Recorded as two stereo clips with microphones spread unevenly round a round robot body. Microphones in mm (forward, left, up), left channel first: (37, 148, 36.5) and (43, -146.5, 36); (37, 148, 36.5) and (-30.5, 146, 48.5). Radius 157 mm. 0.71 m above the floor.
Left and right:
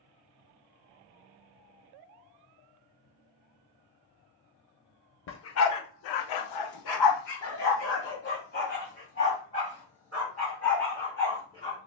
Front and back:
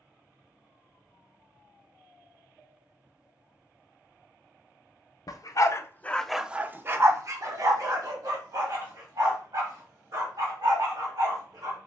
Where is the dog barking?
40° left, 0.8 m; by 11.8 s 165° left, 3.5 m.